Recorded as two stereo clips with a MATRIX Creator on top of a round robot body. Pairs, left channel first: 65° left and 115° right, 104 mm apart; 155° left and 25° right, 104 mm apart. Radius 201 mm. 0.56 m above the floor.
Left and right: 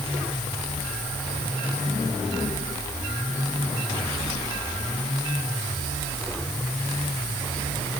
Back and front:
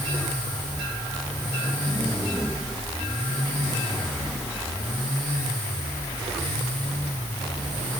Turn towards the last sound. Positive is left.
No sound to turn to.